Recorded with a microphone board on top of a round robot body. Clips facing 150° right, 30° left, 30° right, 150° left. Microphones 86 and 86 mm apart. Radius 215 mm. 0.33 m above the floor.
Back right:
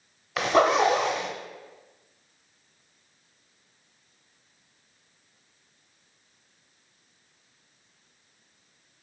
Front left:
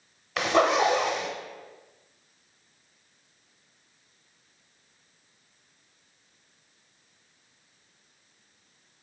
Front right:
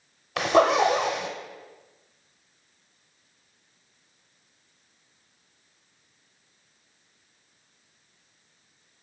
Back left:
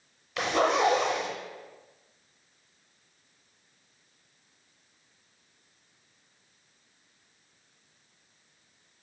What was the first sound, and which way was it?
A zipper, 65° right.